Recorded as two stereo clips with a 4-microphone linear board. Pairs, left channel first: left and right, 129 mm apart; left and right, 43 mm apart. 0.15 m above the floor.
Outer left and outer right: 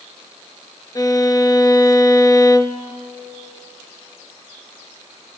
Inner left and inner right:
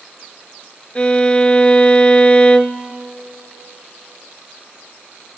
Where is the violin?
30° left (ahead or behind), 0.9 m.